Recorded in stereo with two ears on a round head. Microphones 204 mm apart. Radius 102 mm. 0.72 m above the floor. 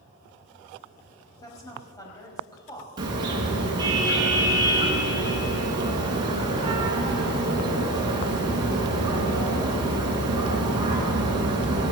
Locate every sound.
1.4 s a woman speaking: 15° left (ahead or behind), 4.5 m
3.0 s a car horn: 20° right (ahead or behind), 5 m